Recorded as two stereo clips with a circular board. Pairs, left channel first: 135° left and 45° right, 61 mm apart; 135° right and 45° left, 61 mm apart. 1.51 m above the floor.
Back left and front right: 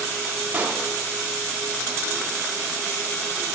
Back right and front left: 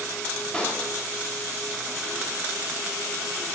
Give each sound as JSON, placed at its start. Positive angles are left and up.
{"t": 0.5, "sound": "a pop", "azimuth_deg": -80, "distance_m": 0.8}